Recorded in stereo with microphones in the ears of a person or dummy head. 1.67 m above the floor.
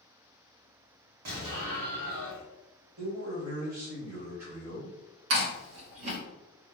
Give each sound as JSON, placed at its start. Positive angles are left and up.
{"t": 1.2, "sound": "an explosion", "side_deg": -55, "distance_m": 1.4}
{"t": 3.0, "sound": "a man speaking", "side_deg": -80, "distance_m": 1.7}
{"t": 5.3, "sound": "chewing", "side_deg": -85, "distance_m": 1.3}